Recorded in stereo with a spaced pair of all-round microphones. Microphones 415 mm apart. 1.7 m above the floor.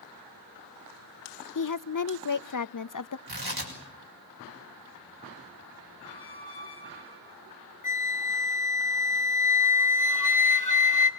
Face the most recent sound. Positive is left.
turn(degrees=45)  # may be behind; listen again after turning